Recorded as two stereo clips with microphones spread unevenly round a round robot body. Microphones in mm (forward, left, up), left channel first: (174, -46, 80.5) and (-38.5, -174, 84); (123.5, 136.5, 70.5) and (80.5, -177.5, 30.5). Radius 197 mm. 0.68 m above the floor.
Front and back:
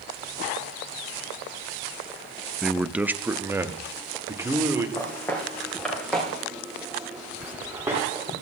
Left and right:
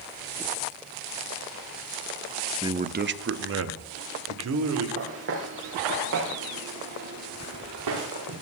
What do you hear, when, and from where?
2.6 s a man speaking: 55° right, 0.6 m; by 4.9 s 70° right, 2.5 m
5.0 s footsteps: 50° right, 5.5 m; by 8.3 s 70° right, 7 m